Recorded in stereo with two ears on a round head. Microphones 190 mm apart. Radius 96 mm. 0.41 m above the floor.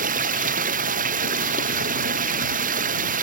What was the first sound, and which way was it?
Running water, 40° right (ahead or behind).